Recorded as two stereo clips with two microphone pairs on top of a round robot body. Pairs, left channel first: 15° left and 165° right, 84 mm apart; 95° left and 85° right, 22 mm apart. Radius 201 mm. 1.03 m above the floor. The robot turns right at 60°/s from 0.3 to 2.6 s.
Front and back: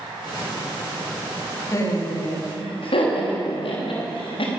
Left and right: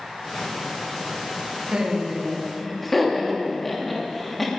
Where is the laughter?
40° right, 3 m; by 4.5 s 15° left, 3 m.